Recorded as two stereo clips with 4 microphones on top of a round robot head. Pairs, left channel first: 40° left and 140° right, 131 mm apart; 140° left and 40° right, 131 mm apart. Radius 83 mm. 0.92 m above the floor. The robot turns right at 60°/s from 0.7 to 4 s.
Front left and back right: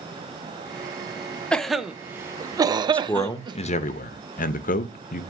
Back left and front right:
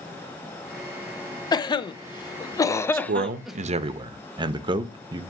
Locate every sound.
1.5 s a cough: 115° left, 0.6 m; by 3.6 s 120° right, 0.6 m
2.9 s a man speaking: 45° right, 0.6 m; by 5.2 s 20° left, 0.6 m